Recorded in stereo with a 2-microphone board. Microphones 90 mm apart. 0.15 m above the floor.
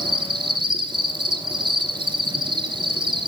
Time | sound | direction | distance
0.0 | an insect | 60° right (ahead or behind) | 0.8 m